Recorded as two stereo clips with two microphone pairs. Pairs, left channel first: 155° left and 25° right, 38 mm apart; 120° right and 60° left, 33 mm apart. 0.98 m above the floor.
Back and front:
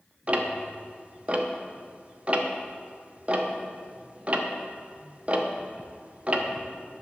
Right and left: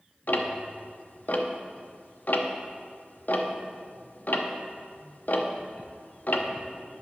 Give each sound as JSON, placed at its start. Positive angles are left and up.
{"t": 0.3, "sound": "ticking", "azimuth_deg": -85, "distance_m": 0.8}